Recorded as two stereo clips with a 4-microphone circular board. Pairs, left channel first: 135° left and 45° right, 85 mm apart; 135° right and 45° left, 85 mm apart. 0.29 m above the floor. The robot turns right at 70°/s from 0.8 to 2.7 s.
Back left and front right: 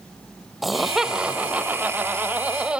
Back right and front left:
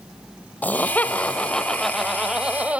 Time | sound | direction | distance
0.6 | laughter | 130° right | 1.5 m